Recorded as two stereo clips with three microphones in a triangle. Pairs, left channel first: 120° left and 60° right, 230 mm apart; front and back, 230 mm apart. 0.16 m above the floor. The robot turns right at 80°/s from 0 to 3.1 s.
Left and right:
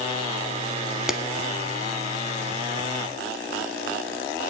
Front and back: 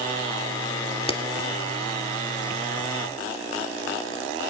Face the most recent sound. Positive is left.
turn(degrees=-175)